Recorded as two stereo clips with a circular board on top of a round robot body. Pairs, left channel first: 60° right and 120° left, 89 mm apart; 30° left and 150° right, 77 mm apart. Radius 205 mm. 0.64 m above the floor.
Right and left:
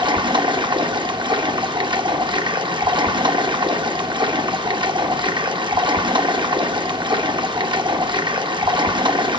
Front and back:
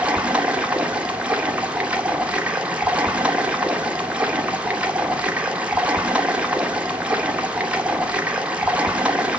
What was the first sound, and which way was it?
Running water, 135° left.